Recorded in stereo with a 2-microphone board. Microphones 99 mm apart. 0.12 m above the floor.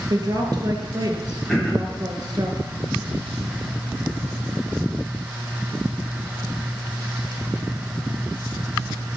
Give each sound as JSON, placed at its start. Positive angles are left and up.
{"t": 0.1, "sound": "a woman speaking", "side_deg": -45, "distance_m": 1.8}
{"t": 1.5, "sound": "throat clearing", "side_deg": 5, "distance_m": 3.0}